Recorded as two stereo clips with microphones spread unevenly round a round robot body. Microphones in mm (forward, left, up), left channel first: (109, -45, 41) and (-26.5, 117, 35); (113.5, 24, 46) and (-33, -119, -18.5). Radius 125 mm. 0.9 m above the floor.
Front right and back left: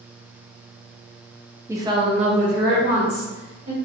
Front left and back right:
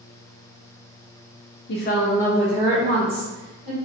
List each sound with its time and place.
1.7 s a woman speaking: 60° left, 0.6 m; by 3.8 s straight behind, 1.4 m